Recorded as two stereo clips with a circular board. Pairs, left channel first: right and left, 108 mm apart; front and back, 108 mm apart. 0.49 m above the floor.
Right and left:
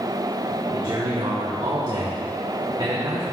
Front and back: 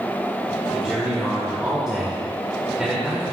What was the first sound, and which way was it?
A man speaking, 100° left.